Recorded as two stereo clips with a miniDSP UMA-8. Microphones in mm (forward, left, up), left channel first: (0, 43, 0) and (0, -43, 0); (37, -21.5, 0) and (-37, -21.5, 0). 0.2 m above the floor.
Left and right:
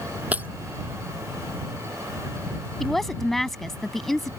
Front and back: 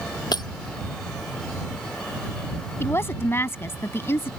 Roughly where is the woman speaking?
Ahead.